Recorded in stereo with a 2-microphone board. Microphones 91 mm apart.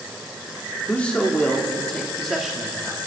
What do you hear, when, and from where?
0.9 s a man speaking: 15° left (ahead or behind), 2.5 m; by 3.0 s 10° right (ahead or behind), 1.9 m